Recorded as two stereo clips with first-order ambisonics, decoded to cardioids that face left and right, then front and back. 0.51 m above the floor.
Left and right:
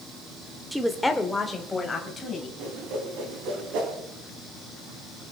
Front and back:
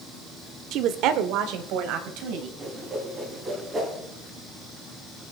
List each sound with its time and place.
0.7 s a woman speaking: 175° right, 0.8 m; by 2.5 s 160° left, 3 m
2.6 s a whoosh: 105° right, 3.5 m